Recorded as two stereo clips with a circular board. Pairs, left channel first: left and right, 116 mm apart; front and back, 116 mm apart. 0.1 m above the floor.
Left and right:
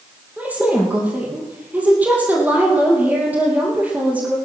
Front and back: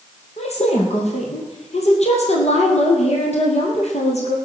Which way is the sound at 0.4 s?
15° right.